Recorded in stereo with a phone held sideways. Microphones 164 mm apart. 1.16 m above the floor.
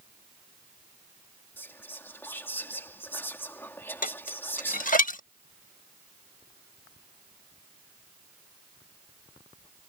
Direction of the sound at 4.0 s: 55° left (ahead or behind).